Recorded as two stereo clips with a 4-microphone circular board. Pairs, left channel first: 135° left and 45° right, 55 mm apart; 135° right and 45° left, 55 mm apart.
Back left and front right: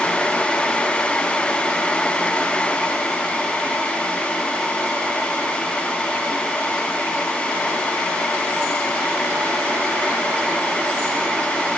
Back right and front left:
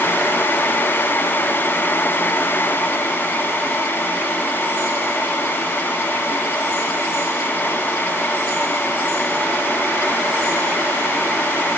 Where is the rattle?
I don't hear a rattle.